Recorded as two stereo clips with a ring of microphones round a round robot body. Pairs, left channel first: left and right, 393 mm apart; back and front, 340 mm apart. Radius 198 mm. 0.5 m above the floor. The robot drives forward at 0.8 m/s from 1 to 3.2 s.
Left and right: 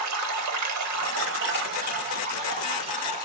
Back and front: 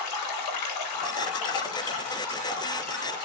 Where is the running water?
140° right, 0.8 m; by 3.3 s 170° right, 2.5 m.